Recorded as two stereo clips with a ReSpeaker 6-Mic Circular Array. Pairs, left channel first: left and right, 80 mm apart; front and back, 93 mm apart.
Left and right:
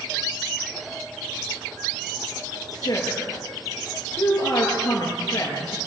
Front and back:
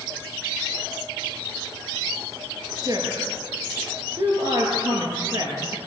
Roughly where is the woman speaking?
Behind left.